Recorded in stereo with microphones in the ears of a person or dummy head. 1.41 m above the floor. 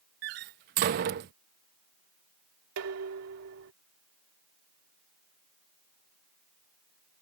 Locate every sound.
0.2 s a door slam: 45° right (ahead or behind)
2.8 s dishes clattering: 80° right